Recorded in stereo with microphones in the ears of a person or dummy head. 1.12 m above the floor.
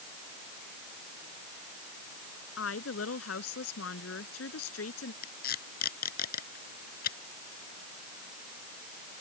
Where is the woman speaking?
80° left.